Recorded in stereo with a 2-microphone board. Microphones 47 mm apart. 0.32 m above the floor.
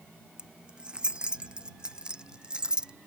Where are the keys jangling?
20° right (ahead or behind); by 2.9 s 15° right (ahead or behind).